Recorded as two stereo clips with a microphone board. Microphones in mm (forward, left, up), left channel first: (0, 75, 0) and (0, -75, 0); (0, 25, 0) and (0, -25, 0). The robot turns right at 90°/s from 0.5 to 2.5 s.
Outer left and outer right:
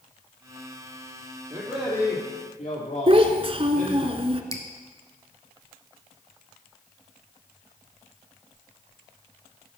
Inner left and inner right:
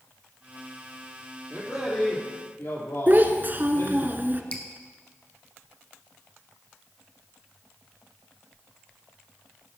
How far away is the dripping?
About 1.2 m.